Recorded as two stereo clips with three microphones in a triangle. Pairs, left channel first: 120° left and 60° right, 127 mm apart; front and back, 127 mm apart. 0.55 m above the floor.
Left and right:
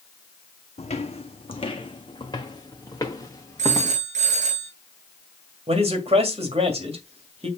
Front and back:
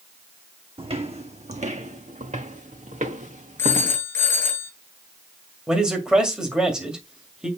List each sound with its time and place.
0.8 s footsteps: 145° left, 1.2 m; by 4.0 s 170° right, 2.5 m
3.6 s a phone ringing: 75° right, 3 m
5.7 s a man speaking: 95° right, 2 m